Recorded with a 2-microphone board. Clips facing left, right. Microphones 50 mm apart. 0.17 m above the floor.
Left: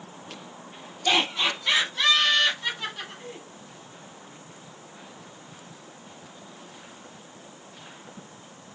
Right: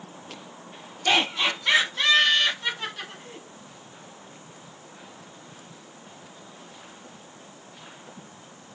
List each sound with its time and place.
1.1 s laughter: 30° right (ahead or behind), 1.3 m; by 3.4 s 10° left (ahead or behind), 1.2 m